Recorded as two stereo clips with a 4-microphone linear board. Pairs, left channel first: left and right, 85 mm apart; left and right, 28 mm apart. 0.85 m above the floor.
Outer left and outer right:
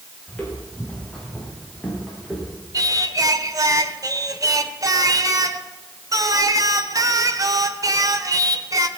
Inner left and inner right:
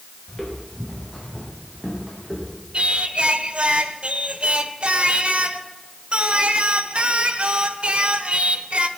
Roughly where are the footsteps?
Centre.